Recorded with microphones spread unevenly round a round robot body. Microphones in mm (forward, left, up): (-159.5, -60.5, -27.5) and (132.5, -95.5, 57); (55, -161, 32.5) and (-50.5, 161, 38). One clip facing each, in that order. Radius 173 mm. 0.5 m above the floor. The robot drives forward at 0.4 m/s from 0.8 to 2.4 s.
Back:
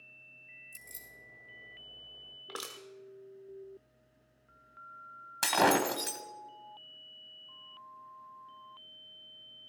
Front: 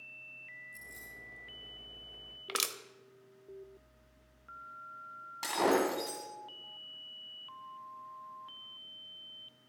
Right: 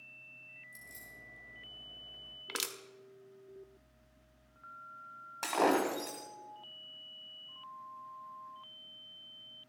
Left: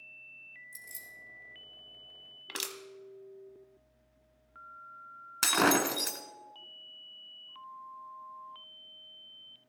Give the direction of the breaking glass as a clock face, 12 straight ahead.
7 o'clock.